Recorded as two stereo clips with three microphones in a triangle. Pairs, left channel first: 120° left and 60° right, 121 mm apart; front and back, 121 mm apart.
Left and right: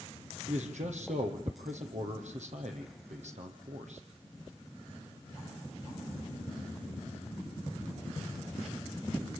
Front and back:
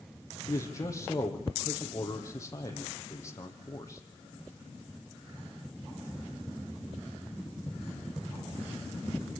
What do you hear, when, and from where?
0.5 s a man speaking: 65° right, 5.5 m